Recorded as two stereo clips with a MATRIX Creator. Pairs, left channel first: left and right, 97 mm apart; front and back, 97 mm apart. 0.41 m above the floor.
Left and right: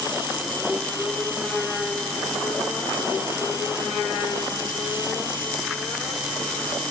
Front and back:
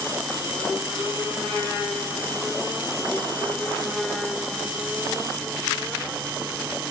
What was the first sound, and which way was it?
Only background noise.